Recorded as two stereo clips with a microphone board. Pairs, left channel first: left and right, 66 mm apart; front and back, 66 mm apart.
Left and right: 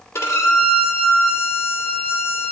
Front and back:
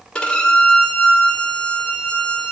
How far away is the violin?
About 1.9 m.